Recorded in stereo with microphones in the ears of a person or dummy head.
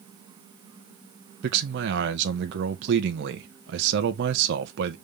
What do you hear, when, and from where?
1.4 s a man speaking: 65° right (ahead or behind), 1.2 m